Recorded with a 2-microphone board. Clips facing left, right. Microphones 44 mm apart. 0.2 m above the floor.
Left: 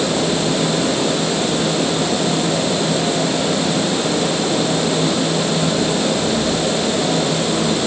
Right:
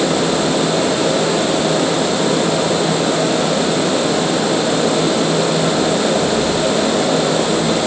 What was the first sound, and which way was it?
Only background noise.